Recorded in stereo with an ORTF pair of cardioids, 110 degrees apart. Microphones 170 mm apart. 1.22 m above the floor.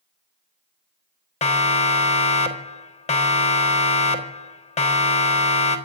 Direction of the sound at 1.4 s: 40° left.